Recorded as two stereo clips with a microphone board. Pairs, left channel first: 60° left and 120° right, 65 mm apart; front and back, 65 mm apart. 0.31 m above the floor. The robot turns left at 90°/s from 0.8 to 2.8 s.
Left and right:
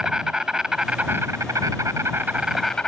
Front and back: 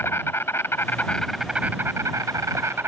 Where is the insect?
40° right; by 2.9 s 140° left.